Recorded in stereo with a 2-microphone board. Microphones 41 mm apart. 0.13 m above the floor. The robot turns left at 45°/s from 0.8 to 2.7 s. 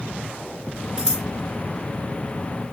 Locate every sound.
1.0 s scissors: 20° right (ahead or behind), 2 m; by 1.2 s 10° right (ahead or behind), 2 m